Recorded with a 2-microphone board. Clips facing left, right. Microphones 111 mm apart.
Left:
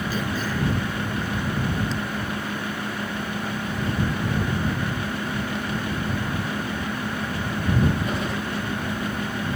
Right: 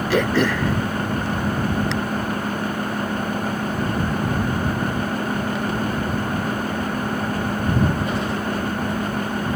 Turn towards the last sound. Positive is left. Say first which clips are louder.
# right 8 dB
turn(degrees=-70)  # may be behind; listen again after turning